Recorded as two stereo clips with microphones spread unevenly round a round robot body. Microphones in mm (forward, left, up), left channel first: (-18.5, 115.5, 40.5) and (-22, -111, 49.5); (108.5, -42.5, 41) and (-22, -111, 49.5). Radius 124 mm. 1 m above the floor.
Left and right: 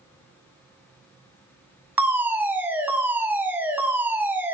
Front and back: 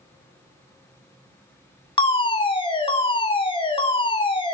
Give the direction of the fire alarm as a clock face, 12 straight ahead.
12 o'clock.